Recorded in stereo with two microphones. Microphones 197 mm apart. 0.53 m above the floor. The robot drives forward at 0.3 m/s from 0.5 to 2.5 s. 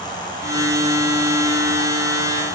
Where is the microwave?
I don't hear a microwave.